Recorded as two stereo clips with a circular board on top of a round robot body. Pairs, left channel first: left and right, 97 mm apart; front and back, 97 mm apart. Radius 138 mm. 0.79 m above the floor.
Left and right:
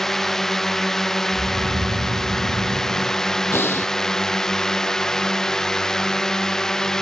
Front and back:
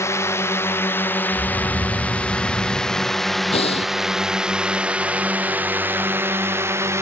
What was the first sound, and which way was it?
A drone, 5° left.